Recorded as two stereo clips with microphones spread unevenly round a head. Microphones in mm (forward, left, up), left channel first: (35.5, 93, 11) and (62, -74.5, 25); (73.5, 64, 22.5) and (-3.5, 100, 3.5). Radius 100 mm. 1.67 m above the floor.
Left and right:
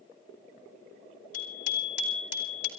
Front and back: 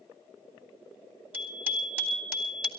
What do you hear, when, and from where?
1.3 s a bicycle bell: 85° left, 4 m; by 2.7 s 75° left, 3 m